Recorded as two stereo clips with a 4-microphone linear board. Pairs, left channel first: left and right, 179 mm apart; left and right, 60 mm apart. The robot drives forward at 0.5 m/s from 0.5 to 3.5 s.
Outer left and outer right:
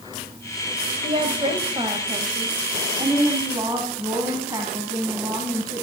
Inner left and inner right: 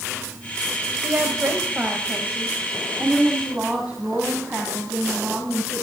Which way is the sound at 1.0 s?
35° right (ahead or behind).